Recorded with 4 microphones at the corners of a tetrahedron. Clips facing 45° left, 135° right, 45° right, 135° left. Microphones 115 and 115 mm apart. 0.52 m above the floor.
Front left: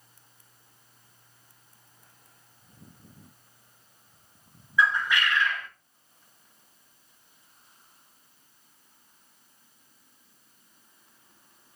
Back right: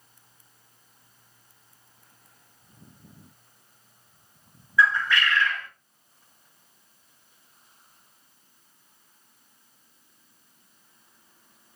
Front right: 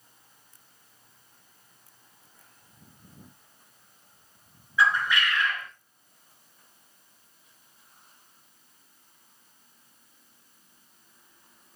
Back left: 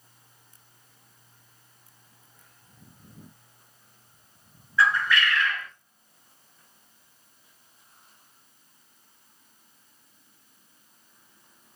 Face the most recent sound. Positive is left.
turn(degrees=-5)